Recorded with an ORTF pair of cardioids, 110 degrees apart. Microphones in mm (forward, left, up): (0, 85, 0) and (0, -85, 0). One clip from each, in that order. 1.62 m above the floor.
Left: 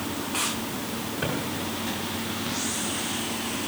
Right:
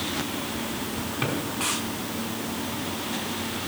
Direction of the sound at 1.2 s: 70° right.